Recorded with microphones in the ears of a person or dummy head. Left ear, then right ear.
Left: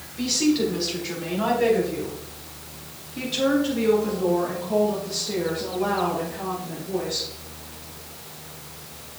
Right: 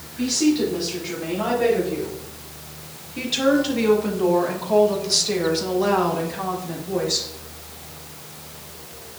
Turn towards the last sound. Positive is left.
turn(degrees=-70)  # may be behind; listen again after turning